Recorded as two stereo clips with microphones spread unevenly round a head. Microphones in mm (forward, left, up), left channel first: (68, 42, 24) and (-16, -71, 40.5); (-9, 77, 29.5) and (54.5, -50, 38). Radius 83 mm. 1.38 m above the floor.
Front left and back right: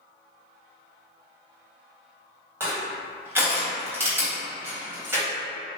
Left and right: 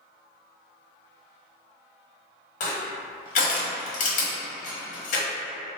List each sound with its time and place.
2.6 s crushing: 160° left, 0.8 m